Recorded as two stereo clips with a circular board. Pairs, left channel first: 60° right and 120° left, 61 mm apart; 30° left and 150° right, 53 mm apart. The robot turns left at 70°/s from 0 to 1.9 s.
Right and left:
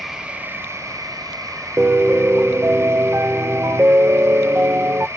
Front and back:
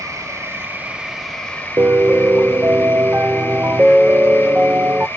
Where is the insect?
150° right, 0.9 m; by 5.2 s 80° left, 0.9 m.